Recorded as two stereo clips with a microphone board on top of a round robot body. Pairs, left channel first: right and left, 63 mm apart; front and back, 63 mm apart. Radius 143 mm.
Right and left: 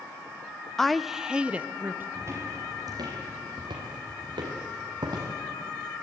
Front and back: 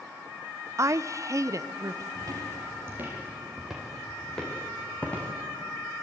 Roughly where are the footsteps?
Behind left.